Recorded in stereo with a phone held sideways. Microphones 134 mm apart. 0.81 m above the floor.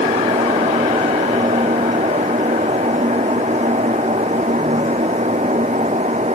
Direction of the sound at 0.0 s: 60° right (ahead or behind).